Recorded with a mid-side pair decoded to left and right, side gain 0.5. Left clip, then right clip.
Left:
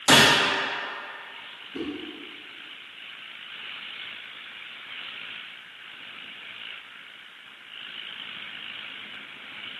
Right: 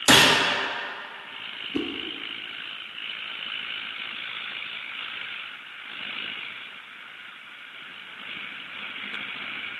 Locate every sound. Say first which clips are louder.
0.1 s a gunshot: even; 40° right, 1.1 m
1.7 s a whoosh: right 4 dB; 55° right, 0.6 m